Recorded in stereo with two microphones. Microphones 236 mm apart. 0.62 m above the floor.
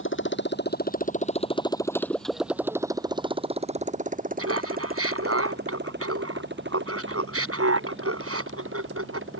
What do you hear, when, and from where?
0.0 s a motorcycle: 55° left (ahead or behind); by 9.4 s 55° right (ahead or behind)
4.4 s laughter: 75° right (ahead or behind)